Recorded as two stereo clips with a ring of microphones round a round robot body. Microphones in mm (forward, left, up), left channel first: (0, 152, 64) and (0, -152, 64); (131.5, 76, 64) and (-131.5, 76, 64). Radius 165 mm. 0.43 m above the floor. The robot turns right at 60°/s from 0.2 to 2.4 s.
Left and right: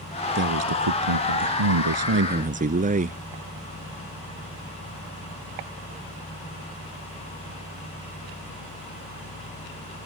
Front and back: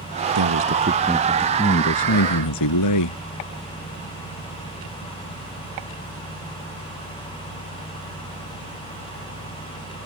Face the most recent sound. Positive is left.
turn(degrees=-25)